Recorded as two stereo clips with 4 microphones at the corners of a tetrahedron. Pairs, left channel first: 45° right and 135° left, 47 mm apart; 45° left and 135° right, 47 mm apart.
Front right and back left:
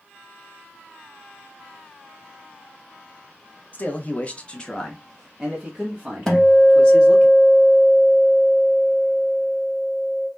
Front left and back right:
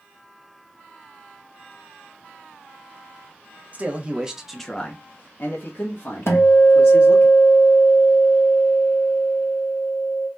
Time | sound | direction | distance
3.7 | a man speaking | 85° right | 0.9 m
6.3 | a guitar | 35° left | 1.0 m